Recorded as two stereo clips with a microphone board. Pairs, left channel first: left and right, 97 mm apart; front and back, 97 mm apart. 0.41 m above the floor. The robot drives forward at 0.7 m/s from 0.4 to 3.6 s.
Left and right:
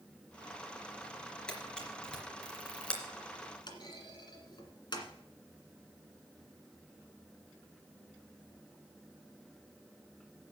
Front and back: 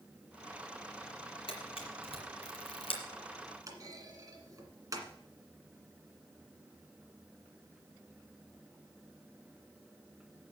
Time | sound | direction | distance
1.5 | a camera shutter | 10° left | 3.5 m
3.7 | a clunk | 125° left | 1.8 m